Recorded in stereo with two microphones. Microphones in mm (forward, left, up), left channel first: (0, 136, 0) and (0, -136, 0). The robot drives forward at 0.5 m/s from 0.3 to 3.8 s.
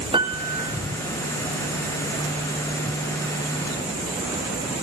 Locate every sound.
0.1 s a piano: 15° right (ahead or behind), 3.5 m; by 0.8 s 20° right (ahead or behind), 3 m